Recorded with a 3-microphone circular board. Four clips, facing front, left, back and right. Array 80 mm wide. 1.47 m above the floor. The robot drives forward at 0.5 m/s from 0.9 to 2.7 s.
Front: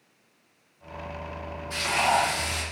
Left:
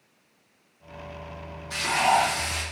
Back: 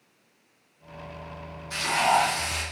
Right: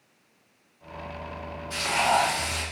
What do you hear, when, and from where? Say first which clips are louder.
1.7 s frying: left 2 dB, back 1 dB; 125° left, 2 m; by 2.6 s 135° left, 2.5 m